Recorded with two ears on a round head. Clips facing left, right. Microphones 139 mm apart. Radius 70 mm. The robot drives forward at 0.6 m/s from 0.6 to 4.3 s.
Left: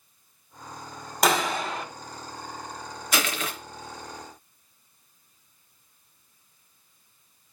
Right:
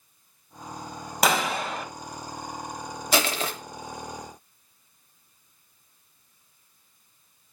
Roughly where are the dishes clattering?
I don't hear dishes clattering.